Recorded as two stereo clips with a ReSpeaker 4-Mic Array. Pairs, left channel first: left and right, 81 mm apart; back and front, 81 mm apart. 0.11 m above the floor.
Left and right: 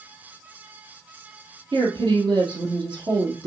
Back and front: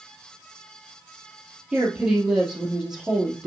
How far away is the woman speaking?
About 2.5 m.